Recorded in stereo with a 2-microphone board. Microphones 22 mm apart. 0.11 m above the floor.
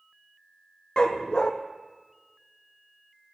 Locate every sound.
1.0 s a dog barking: 35° left (ahead or behind), 1.5 m